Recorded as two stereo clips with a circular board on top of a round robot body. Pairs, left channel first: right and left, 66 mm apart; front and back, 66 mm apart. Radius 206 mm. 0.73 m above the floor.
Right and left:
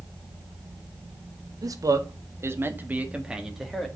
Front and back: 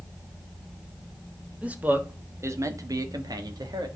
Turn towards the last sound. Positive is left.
turn(degrees=180)